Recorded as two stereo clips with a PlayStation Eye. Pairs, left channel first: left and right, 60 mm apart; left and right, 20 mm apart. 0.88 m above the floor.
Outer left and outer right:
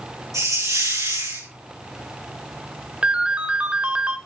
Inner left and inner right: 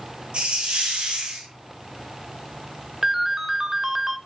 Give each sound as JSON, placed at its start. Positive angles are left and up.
{"t": 0.3, "sound": "a hiss", "side_deg": -65, "distance_m": 8.0}
{"t": 3.0, "sound": "a ringtone", "side_deg": -20, "distance_m": 1.4}